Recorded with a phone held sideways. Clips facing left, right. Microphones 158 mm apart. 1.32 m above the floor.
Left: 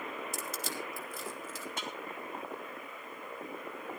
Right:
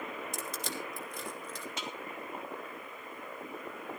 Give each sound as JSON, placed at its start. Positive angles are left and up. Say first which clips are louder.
{"t": 0.3, "sound": "crushing", "louder": "even", "side_deg": 5, "distance_m": 2.5}
{"t": 1.8, "sound": "a snare drum", "louder": "even", "side_deg": 50, "distance_m": 3.0}